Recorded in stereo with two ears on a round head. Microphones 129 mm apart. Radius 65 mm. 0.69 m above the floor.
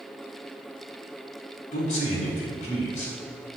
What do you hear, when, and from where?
1.7 s a man speaking: 55° left (ahead or behind), 5.5 m